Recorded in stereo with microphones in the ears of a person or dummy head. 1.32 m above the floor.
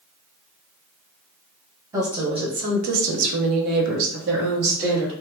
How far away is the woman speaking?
About 0.8 m.